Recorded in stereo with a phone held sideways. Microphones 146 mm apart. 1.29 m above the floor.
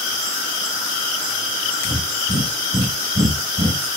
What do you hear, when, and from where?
1.9 s breathing: 60° right (ahead or behind), 1.0 m